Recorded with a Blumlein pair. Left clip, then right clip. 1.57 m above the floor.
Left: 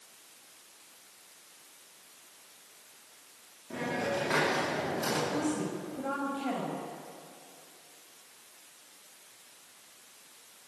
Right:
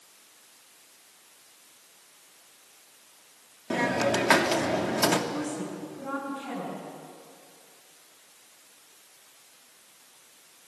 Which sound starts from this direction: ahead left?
A woman speaking, at 5.3 s.